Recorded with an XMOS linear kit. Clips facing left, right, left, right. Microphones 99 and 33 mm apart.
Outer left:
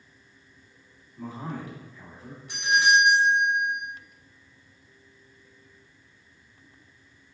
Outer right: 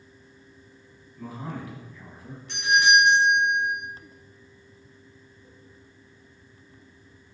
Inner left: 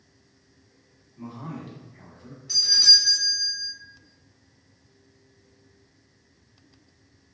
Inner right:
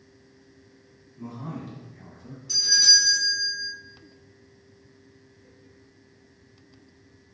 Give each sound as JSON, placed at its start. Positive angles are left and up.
{"t": 1.2, "sound": "a man speaking", "side_deg": 25, "distance_m": 1.1}
{"t": 2.5, "sound": "a doorbell", "side_deg": 10, "distance_m": 1.5}